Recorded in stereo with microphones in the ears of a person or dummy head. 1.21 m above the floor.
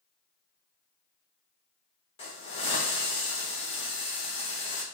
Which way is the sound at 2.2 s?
30° left (ahead or behind).